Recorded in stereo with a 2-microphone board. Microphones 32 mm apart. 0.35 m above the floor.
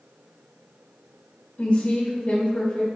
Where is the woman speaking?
30° left (ahead or behind), 1.5 m.